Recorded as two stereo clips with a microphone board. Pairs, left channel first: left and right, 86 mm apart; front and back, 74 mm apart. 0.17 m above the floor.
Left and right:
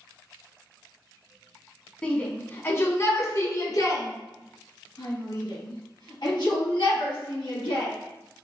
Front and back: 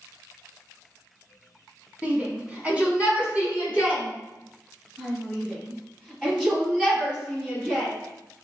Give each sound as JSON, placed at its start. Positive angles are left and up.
{"t": 2.0, "sound": "a shout", "azimuth_deg": 150, "distance_m": 1.1}